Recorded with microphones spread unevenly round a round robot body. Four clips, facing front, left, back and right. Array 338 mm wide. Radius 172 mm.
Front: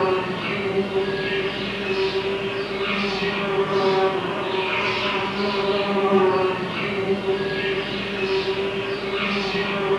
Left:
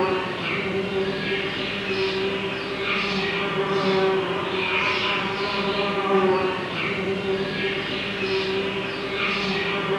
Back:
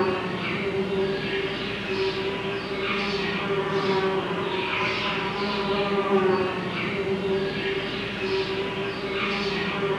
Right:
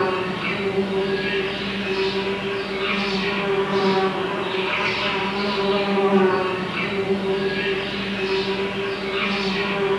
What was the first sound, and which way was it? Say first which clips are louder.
An insect: right 1 dB, front 4 dB; 40° right.